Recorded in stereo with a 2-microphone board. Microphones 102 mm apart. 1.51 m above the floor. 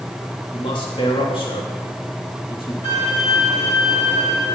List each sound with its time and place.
0.5 s a man speaking: 60° left (ahead or behind), 3 m
2.8 s a violin: 85° left, 6.5 m